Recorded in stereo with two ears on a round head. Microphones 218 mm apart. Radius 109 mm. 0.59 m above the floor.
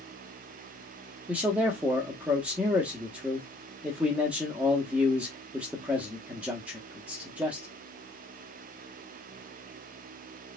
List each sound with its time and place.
1.3 s a man speaking: 5° right (ahead or behind), 0.9 m